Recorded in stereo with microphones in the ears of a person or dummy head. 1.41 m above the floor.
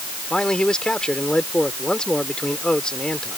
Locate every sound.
0.3 s a man speaking: 10° left (ahead or behind)